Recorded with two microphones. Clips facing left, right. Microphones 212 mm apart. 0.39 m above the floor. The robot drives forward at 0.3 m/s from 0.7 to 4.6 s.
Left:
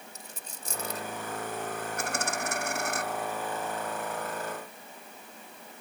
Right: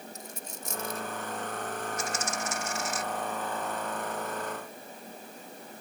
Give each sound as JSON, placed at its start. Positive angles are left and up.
{"t": 0.1, "sound": "a dropped coin", "side_deg": 35}
{"t": 2.0, "sound": "a dropped coin", "side_deg": 60}